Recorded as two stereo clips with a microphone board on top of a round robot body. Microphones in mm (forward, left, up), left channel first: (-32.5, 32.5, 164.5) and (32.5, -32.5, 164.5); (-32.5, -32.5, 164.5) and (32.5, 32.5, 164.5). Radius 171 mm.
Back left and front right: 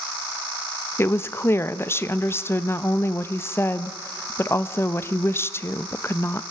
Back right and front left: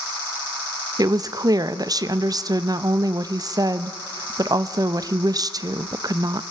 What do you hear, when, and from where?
1.0 s a woman speaking: 80° left, 1.0 m